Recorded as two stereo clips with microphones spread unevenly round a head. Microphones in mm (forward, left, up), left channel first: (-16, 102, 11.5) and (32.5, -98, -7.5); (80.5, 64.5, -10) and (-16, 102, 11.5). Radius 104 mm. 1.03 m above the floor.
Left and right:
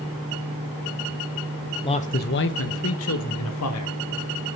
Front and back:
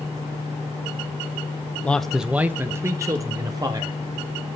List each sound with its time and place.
1.8 s a man speaking: 40° left, 0.8 m; by 4.0 s 105° left, 2.5 m